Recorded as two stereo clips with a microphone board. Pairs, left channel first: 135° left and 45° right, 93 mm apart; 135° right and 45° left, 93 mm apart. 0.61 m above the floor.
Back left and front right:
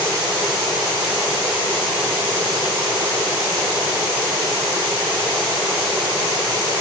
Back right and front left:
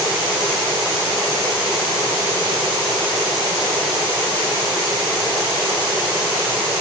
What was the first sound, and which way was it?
Only background noise.